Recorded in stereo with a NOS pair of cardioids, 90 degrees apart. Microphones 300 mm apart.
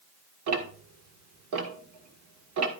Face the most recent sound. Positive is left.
turn(degrees=-60)